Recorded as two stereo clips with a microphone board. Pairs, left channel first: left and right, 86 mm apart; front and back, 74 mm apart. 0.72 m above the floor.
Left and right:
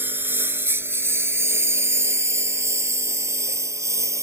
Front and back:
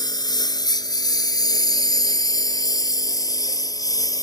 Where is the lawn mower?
25° right; by 4.2 s 35° right.